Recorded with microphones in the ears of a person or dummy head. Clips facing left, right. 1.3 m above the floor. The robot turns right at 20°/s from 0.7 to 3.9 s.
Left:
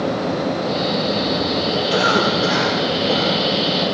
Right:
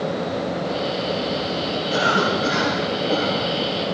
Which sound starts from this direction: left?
A cough, at 1.9 s.